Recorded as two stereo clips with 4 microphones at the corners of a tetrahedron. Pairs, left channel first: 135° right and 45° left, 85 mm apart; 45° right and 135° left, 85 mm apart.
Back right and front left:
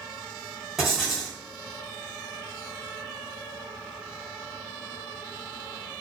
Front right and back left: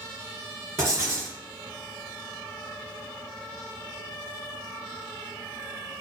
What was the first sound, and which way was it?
Writing, 125° left.